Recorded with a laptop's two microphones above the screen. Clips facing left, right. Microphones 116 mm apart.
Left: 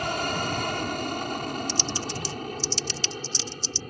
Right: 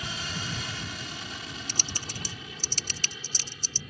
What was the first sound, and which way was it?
An aircraft, 55° left (ahead or behind).